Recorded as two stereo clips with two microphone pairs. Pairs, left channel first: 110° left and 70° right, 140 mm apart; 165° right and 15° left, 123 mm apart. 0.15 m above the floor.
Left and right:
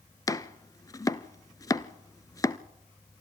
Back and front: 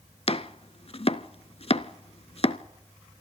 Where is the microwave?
No microwave in this recording.